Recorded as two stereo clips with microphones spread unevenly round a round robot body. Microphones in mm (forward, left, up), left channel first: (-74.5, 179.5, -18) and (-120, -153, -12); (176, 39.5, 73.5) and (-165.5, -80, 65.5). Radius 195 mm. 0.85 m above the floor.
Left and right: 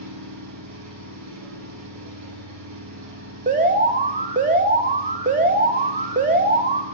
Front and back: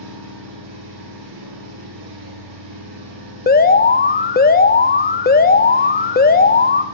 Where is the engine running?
135° right, 7.5 m.